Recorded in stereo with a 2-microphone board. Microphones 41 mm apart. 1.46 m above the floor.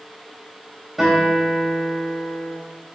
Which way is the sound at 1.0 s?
10° right (ahead or behind).